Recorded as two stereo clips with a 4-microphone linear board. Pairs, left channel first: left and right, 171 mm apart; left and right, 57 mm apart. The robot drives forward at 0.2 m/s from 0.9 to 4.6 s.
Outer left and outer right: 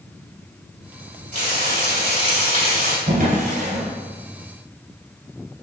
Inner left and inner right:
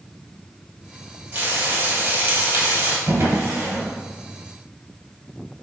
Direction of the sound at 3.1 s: 50° right (ahead or behind).